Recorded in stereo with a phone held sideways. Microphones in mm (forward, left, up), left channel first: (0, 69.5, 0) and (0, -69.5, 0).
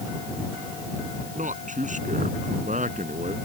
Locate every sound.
1.4 s a man speaking: 65° right (ahead or behind)